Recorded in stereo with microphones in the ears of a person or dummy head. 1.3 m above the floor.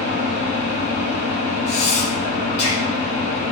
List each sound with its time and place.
0.0 s an engine running: 35° left (ahead or behind), 0.9 m
1.7 s breathing: 35° left (ahead or behind), 0.7 m